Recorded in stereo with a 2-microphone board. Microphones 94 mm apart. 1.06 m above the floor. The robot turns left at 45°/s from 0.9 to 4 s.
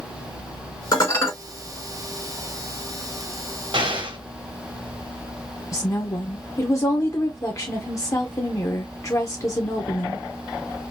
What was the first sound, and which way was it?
Dishes clattering, 45° left (ahead or behind).